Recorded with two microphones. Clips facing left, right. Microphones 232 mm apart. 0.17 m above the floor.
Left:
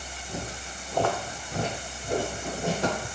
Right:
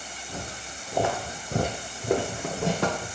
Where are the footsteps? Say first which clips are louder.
Left 2 dB; 10° left (ahead or behind), 1.1 m; by 3.1 s 70° right (ahead or behind), 1.3 m.